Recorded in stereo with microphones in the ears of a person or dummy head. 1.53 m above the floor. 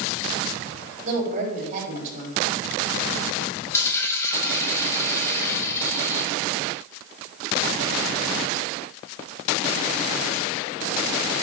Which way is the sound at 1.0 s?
45° right (ahead or behind).